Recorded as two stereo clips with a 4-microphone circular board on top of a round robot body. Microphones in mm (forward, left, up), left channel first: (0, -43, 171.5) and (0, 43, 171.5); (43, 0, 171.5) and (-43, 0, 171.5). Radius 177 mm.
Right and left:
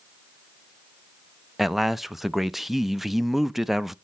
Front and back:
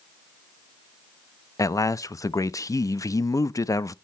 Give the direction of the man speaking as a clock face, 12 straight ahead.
12 o'clock.